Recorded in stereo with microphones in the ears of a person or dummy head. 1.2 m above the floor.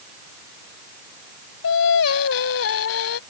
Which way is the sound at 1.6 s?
85° left.